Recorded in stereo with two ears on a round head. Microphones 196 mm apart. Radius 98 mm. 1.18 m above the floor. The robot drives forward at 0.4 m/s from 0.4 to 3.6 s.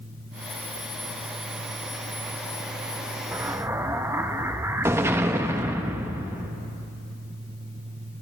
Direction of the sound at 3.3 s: 10° right (ahead or behind).